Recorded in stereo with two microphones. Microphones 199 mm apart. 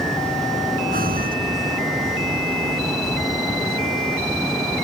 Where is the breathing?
45° right (ahead or behind).